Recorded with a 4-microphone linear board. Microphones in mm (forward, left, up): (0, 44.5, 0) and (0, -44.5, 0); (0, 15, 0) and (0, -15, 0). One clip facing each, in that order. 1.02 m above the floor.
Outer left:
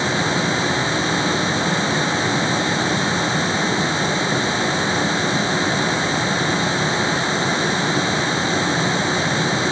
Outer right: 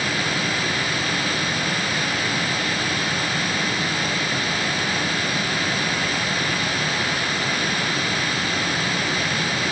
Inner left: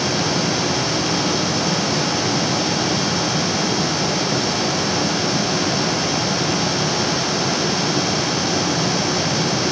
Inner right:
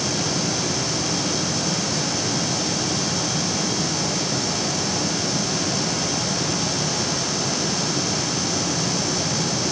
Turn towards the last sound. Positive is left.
No sound to turn to.